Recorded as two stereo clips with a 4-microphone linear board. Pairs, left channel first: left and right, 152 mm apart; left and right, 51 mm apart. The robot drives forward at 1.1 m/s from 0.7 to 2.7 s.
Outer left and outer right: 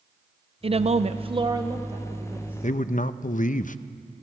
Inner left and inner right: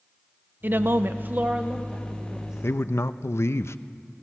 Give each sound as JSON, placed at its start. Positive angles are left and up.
{"t": 0.6, "sound": "a woman speaking", "side_deg": -40, "distance_m": 0.6}
{"t": 2.6, "sound": "a man speaking", "side_deg": 50, "distance_m": 0.6}